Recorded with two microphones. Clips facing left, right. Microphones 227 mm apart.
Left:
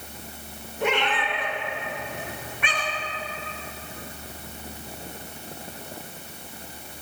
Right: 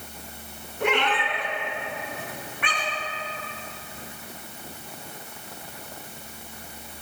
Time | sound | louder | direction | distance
0.8 | a cat meowing | right 1 dB | 60° right (ahead or behind) | 2 m